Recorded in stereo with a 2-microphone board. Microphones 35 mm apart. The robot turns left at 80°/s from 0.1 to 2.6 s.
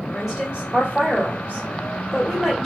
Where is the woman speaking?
10° right, 1.5 m; by 2.7 s 150° left, 1.5 m.